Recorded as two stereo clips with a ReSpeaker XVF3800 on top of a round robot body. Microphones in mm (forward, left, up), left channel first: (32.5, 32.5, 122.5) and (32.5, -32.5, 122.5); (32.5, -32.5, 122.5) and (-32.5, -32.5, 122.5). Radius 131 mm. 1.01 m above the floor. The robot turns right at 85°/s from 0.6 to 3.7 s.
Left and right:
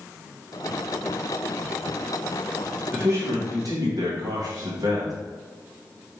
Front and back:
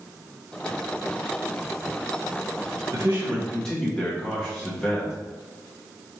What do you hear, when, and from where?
2.9 s a man speaking: 140° right, 1.1 m; by 5.1 s 75° right, 1.1 m